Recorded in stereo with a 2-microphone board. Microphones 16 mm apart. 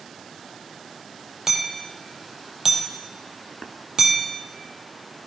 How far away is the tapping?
About 1.8 m.